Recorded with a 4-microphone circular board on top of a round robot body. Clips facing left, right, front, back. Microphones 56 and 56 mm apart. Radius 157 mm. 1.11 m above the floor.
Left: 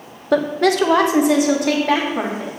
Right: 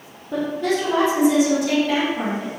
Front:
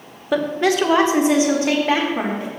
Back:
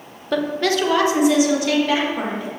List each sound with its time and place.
0.3 s a woman speaking: 80° left, 1.0 m; by 2.5 s 50° left, 2.5 m